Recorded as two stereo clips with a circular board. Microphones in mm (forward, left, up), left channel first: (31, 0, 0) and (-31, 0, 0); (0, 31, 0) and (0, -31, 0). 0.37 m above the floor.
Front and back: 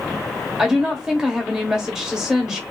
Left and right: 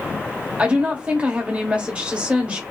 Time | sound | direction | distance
0.6 | a woman speaking | 115° right | 1.0 m